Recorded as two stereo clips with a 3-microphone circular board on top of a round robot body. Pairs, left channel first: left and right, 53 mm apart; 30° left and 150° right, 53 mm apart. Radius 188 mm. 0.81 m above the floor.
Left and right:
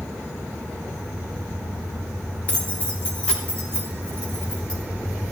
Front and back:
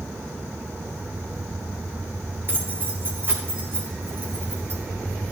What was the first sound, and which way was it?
Keys jangling, 155° left.